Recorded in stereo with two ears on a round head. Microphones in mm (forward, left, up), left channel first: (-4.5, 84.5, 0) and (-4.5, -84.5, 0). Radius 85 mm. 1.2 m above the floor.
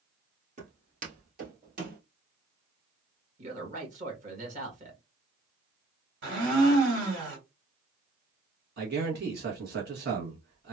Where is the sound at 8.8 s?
60° right (ahead or behind), 1.4 m.